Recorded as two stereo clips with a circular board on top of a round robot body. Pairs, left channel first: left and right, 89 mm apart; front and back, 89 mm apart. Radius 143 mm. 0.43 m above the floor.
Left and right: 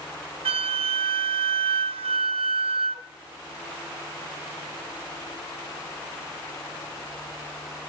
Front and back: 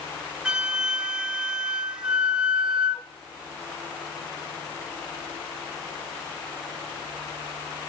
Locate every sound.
0.5 s a flute: 100° right, 0.6 m